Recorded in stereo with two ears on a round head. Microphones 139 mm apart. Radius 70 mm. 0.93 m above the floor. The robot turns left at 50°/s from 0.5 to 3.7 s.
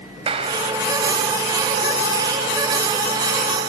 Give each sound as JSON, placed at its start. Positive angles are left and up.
{"t": 0.3, "sound": "a clap", "side_deg": -35, "distance_m": 5.0}